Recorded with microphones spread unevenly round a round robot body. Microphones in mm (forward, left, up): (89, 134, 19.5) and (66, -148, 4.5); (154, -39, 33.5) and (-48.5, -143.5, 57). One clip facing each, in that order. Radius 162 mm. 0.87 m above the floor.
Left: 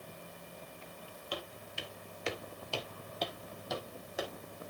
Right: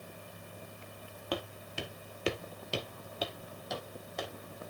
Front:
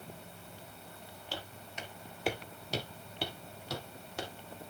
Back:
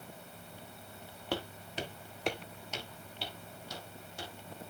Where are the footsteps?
140° right, 1.5 m; by 4.3 s straight ahead, 3 m.